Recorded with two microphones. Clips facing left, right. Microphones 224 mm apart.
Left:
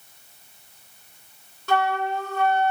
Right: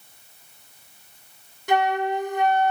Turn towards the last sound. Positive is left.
turn(degrees=-15)  # may be behind; listen again after turning